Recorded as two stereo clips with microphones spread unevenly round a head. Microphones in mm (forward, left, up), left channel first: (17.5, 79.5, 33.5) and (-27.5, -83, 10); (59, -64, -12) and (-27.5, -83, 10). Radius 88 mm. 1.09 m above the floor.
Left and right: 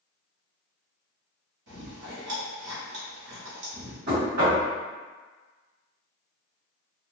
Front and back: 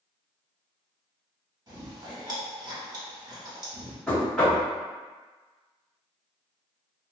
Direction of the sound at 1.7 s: 125° right.